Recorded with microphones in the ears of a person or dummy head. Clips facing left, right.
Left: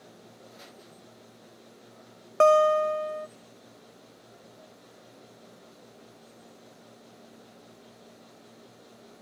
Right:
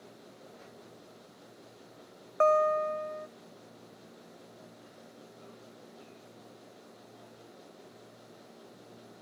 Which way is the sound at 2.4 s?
50° left (ahead or behind).